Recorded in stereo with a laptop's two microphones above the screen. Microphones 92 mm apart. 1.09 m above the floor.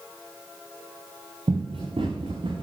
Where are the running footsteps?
75° right (ahead or behind), 4 m; by 2.6 s 65° right (ahead or behind), 3 m.